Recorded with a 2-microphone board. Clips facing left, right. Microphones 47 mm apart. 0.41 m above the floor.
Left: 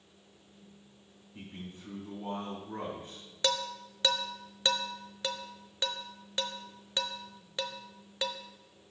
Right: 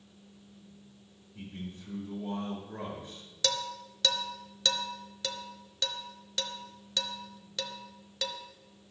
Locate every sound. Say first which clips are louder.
1.4 s a man speaking: right 3 dB; 55° left (ahead or behind), 3.5 m
3.4 s dishes clattering: left 1 dB; 20° left (ahead or behind), 0.6 m